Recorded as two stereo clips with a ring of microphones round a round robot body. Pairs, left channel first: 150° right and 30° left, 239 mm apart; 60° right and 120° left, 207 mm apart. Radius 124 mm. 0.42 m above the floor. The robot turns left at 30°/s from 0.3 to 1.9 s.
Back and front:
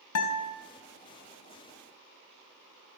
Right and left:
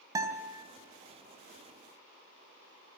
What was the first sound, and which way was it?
A guitar, 165° right.